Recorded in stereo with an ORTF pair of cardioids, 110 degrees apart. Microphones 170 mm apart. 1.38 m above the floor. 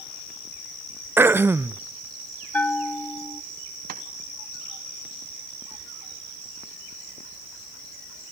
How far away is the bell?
About 0.7 m.